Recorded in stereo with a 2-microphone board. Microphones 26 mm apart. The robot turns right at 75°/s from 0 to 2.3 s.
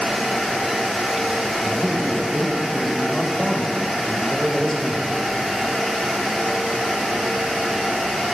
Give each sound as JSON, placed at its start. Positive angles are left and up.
{"t": 1.6, "sound": "a man speaking", "azimuth_deg": 125, "distance_m": 1.1}